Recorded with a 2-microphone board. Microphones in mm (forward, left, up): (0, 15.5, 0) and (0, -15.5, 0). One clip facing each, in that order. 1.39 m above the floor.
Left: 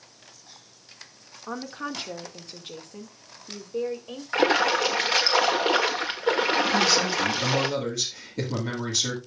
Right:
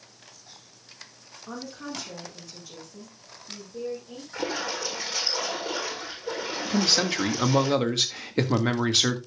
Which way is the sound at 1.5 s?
35° left (ahead or behind).